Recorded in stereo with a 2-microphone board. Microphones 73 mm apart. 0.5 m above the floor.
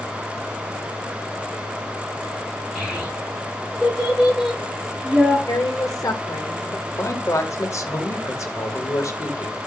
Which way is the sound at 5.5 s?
50° left (ahead or behind).